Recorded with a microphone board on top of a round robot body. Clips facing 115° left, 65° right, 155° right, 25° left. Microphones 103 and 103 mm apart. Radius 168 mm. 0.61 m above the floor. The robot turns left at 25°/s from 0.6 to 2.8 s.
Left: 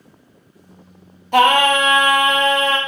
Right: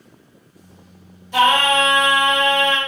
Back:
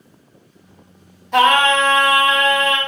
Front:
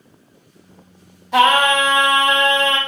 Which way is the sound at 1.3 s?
110° left.